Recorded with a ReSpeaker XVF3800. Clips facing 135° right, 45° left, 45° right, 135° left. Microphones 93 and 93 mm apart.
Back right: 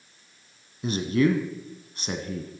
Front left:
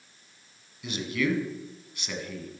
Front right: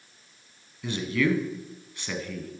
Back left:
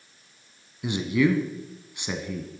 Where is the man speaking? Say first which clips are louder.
Back right 6 dB, back left 3 dB; 165° right, 1.4 m.